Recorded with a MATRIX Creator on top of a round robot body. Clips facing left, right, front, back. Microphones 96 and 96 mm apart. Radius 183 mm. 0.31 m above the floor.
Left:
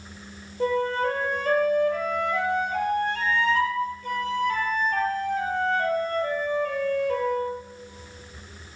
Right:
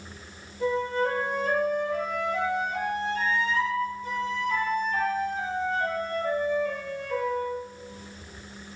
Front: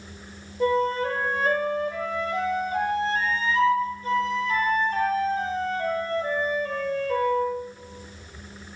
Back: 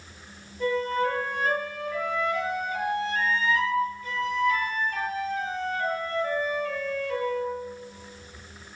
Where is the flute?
55° left, 7 m.